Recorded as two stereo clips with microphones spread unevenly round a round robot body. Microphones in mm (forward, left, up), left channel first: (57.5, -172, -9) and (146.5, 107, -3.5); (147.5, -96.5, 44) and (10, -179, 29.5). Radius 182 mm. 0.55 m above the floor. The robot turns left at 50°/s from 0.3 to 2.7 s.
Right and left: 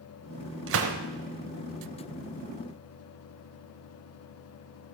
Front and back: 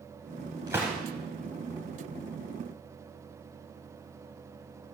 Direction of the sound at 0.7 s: 130° left.